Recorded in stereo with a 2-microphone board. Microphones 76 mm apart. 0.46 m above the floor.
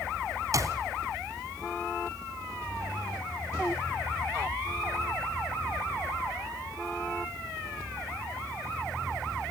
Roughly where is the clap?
Right.